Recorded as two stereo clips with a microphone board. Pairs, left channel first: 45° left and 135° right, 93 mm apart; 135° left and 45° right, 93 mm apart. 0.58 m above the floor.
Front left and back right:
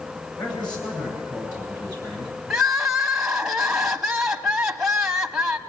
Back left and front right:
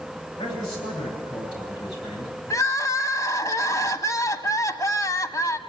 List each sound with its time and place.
0.4 s a man speaking: 90° left, 10 m
2.5 s crying: 145° left, 1.2 m